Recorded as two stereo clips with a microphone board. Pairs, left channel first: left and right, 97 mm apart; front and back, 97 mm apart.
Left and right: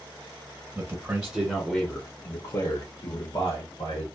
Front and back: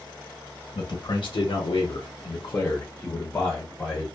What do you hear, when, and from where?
0.8 s a man speaking: 35° right, 0.8 m; by 4.1 s 85° left, 1.2 m